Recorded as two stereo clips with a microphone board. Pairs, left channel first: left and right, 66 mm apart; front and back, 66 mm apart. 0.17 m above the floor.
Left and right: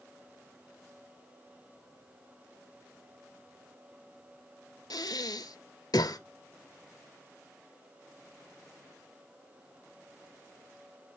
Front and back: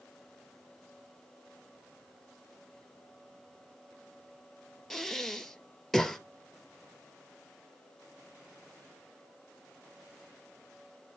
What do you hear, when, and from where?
4.9 s breathing: 85° left, 0.6 m